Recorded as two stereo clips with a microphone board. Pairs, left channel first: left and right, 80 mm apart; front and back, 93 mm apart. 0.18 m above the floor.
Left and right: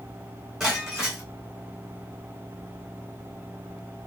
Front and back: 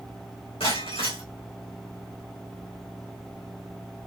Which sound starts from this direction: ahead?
Breaking glass, at 0.6 s.